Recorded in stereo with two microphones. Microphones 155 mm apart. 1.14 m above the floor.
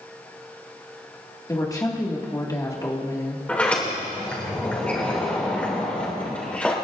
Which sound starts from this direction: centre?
A sliding door, at 3.5 s.